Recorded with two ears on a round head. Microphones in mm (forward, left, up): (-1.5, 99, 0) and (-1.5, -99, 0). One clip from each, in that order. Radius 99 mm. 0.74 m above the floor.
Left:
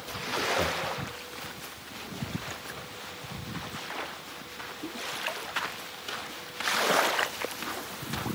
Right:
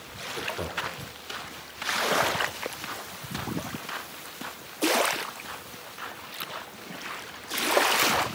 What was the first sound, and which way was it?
Laughter, 30° left (ahead or behind).